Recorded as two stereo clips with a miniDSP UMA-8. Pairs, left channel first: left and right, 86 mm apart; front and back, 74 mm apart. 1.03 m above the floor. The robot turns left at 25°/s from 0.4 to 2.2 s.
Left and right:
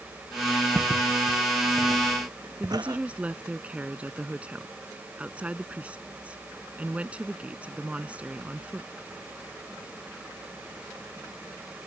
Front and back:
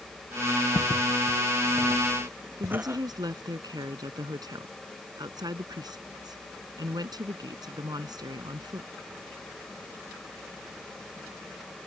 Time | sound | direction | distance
0.8 | footsteps | 30° right | ?
2.6 | a woman speaking | 165° right | ?